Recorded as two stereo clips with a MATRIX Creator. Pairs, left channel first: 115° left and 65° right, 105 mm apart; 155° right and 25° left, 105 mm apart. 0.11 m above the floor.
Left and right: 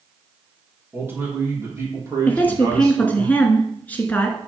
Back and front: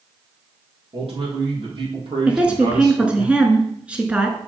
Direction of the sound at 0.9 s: Straight ahead.